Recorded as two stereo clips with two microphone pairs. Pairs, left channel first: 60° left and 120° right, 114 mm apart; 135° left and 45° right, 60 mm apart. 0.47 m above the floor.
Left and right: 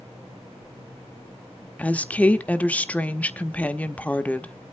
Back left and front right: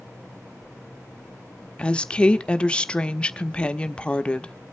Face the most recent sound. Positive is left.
turn(degrees=100)